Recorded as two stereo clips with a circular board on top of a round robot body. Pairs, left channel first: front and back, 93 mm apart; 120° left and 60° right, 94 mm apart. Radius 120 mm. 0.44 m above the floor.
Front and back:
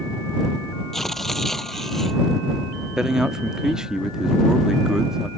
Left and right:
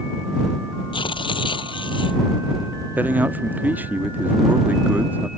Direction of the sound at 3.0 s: 105° right.